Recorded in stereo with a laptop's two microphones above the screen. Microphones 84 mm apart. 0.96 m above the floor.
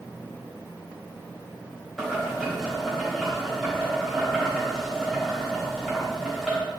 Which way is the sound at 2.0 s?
5° left (ahead or behind).